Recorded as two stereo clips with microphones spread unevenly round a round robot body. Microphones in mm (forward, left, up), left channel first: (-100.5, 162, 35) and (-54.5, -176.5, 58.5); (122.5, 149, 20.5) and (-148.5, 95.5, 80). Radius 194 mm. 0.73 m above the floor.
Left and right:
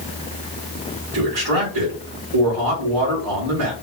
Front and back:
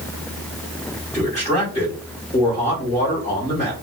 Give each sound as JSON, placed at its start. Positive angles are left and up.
{"t": 1.1, "sound": "a man speaking", "azimuth_deg": -60, "distance_m": 3.0}